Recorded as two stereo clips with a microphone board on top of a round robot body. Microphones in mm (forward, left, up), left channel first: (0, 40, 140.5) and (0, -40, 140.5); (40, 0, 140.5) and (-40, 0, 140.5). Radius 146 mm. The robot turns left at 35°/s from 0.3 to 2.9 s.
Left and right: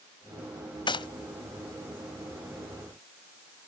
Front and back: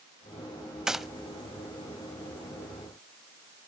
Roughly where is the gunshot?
Left.